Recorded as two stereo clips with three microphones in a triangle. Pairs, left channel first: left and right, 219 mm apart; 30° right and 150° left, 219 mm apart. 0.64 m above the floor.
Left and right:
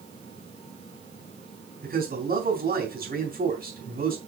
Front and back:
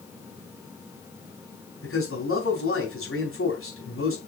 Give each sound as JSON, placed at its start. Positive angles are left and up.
{"t": 1.8, "sound": "a man speaking", "azimuth_deg": -40, "distance_m": 4.0}